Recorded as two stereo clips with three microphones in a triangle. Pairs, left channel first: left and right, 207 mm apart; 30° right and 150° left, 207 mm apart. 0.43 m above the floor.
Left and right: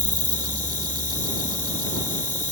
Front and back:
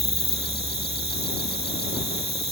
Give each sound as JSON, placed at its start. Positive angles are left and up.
{"t": 0.0, "sound": "an insect", "azimuth_deg": 140}